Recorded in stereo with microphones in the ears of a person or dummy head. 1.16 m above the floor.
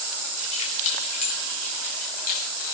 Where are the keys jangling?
45° left (ahead or behind), 5.5 m; by 2.5 s 55° left (ahead or behind), 6 m.